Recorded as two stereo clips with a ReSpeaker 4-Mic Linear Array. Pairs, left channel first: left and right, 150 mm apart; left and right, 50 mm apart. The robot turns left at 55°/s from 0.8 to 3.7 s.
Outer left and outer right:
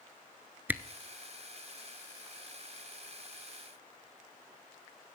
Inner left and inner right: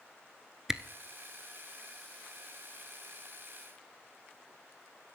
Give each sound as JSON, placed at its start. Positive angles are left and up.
{"t": 0.7, "sound": "a camera shutter", "side_deg": -10, "distance_m": 0.8}